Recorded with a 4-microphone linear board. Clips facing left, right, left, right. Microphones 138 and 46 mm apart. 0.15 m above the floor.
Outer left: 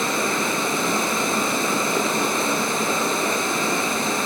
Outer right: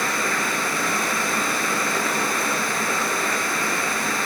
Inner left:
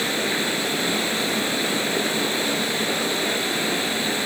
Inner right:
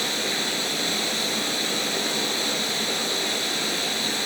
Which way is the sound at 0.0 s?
20° left (ahead or behind).